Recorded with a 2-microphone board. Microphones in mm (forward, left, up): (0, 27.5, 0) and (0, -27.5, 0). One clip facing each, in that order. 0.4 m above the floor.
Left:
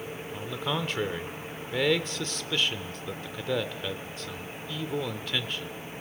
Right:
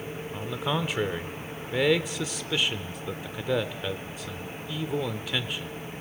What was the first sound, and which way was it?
A man speaking, 10° right (ahead or behind).